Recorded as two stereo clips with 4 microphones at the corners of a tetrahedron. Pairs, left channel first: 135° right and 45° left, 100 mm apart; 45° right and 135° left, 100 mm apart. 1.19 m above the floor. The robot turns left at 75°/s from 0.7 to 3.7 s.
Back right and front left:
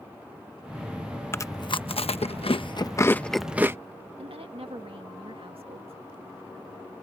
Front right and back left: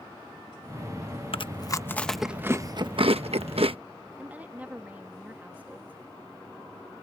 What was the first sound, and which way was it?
Chewing, 70° right.